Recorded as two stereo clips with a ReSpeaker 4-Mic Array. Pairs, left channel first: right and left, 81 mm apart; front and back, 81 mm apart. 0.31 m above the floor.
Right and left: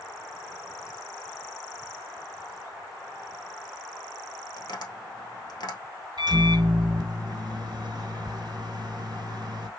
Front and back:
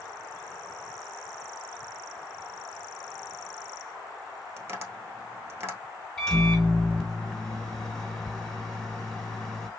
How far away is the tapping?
About 1.5 m.